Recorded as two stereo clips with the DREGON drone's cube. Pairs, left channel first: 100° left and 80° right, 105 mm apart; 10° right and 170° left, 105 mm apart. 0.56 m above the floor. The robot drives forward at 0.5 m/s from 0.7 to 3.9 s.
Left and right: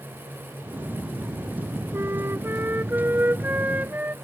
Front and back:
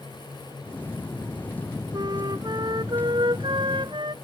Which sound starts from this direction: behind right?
A flute, at 1.9 s.